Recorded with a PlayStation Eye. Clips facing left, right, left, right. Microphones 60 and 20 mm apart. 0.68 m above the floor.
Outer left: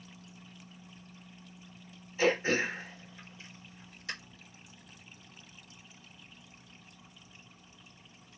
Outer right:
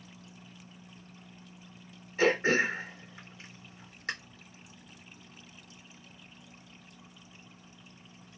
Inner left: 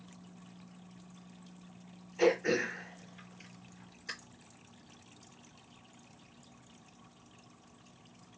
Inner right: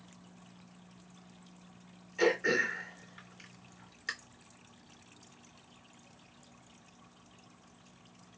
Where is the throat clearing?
55° right (ahead or behind), 2.5 m.